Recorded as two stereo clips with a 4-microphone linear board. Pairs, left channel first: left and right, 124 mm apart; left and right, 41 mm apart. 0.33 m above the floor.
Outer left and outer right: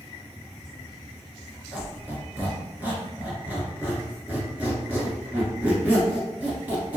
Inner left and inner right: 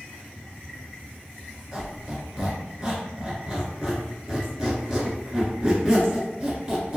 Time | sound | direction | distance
1.7 | a squeak | 15° right (ahead or behind) | 0.9 m